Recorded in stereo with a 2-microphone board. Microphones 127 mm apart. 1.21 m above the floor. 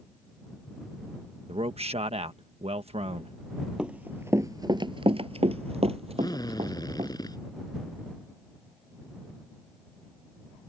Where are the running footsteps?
5° right (ahead or behind); by 7.1 s 50° right (ahead or behind).